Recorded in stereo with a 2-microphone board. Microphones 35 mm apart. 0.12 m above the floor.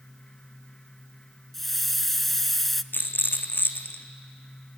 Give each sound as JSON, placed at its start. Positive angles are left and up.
{"t": 1.5, "sound": "a hiss", "side_deg": 5, "distance_m": 0.6}
{"t": 2.9, "sound": "a rattle", "side_deg": 85, "distance_m": 1.1}